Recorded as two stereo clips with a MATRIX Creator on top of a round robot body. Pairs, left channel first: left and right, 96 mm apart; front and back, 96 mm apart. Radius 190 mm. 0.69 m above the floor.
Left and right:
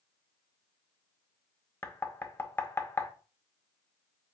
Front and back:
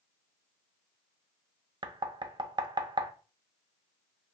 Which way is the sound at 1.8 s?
150° left.